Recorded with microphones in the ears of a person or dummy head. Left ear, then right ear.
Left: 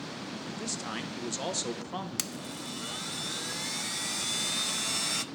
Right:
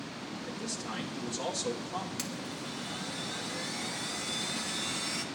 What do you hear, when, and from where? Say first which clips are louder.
0.5 s a man speaking: left 2 dB; 45° left (ahead or behind), 1.0 m
2.2 s a blender: left 1 dB; 25° left (ahead or behind), 0.6 m